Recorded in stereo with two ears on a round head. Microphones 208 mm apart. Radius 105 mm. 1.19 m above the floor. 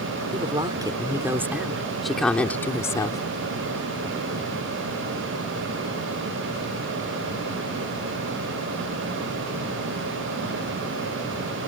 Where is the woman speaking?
25° right (ahead or behind); by 3.2 s 20° left (ahead or behind).